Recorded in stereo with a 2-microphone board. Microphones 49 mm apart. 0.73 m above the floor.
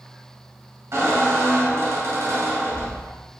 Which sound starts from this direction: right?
A squeak, at 0.9 s.